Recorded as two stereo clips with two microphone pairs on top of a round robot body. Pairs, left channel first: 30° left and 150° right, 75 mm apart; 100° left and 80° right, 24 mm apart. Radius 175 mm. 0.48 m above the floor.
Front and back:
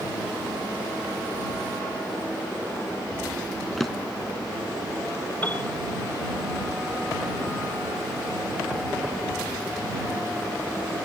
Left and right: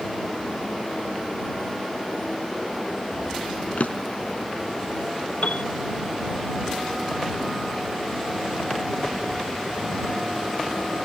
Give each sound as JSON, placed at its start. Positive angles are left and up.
{"t": 3.8, "sound": "a drawer", "azimuth_deg": 120}
{"t": 5.4, "sound": "a piano", "azimuth_deg": 100}